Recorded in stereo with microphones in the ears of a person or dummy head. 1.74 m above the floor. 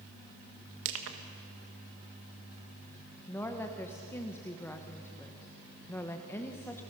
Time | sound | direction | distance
0.8 | crushing | 70° right (ahead or behind) | 1.7 m
3.3 | a woman speaking | 10° left (ahead or behind) | 1.2 m